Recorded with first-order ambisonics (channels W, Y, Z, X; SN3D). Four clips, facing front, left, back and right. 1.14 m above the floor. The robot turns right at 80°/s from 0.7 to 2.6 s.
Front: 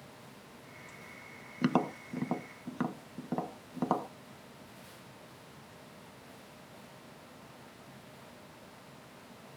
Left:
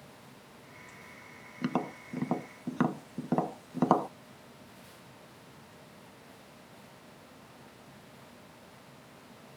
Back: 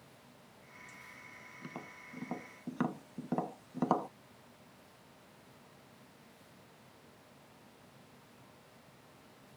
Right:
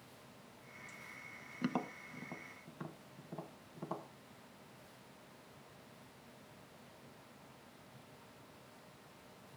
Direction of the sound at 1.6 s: 10° left.